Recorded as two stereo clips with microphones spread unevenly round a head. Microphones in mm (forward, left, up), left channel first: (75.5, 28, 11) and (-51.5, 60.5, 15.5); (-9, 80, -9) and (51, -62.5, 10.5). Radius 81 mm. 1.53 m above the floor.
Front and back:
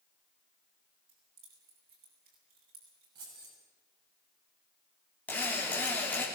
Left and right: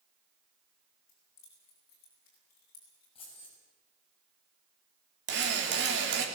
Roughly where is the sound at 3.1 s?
Behind.